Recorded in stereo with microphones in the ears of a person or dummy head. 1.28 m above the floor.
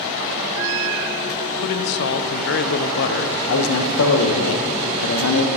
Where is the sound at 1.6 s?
60° left (ahead or behind), 0.5 m.